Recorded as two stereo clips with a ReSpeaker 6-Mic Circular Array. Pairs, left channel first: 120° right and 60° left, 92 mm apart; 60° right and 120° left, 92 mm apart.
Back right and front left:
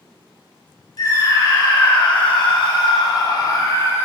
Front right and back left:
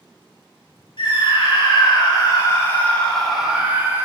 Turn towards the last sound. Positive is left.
turn(degrees=180)